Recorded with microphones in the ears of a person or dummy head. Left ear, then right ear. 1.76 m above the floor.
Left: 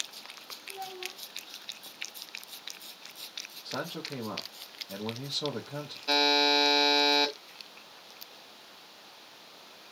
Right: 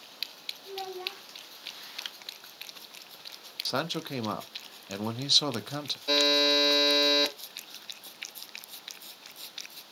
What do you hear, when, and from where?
0.7 s a child speaking: 35° right (ahead or behind), 1.5 m
3.6 s a man speaking: 60° right (ahead or behind), 0.6 m
6.1 s a buzzer: 5° left (ahead or behind), 1.5 m